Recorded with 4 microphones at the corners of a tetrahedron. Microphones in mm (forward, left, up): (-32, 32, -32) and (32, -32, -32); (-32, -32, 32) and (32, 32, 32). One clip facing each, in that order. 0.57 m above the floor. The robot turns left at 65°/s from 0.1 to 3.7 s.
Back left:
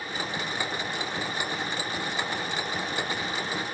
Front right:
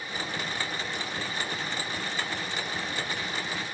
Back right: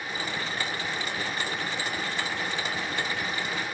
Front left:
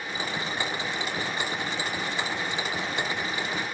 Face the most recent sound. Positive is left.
No sound to turn to.